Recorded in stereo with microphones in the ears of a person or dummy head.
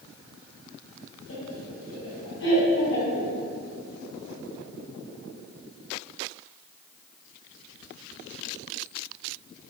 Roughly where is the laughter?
Left.